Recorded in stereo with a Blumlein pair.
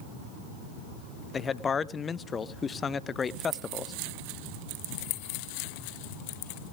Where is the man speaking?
20° left, 0.6 m.